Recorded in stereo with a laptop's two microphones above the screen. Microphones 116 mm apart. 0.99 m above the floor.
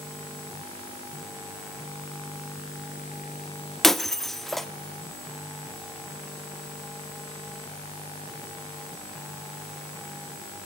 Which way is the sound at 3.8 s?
Centre (ahead or behind).